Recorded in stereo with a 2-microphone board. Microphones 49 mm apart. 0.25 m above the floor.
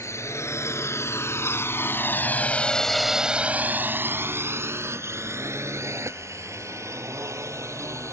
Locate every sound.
0.0 s a drone: 65° left (ahead or behind); by 8.1 s 70° right (ahead or behind)